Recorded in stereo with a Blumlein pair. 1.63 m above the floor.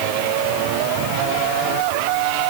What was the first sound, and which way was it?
Only background noise.